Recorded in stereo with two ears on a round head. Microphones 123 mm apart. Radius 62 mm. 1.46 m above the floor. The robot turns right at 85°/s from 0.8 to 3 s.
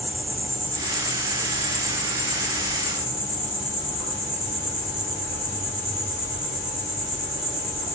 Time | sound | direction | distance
0.0 | an insect | 125° right | 1.2 m